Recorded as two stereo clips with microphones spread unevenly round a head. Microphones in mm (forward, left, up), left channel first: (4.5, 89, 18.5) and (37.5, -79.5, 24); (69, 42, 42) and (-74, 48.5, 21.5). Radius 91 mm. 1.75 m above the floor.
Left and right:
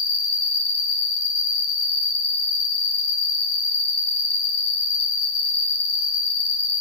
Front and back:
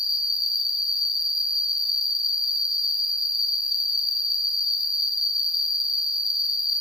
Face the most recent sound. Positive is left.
turn(degrees=85)